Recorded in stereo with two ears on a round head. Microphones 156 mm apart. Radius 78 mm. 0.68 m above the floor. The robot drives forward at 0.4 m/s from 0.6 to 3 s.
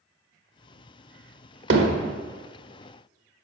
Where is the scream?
I don't hear a scream.